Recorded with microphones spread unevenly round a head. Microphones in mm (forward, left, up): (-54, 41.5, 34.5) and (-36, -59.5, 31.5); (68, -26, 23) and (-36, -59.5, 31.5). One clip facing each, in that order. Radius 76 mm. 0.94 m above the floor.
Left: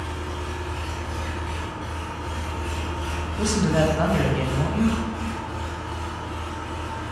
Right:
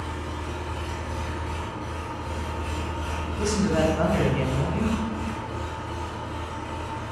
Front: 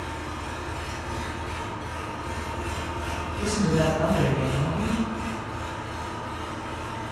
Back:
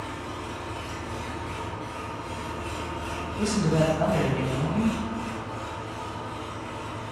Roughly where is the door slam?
I don't hear a door slam.